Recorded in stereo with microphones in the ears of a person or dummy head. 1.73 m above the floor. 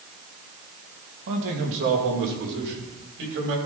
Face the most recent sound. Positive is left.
turn(degrees=-65)  # may be behind; listen again after turning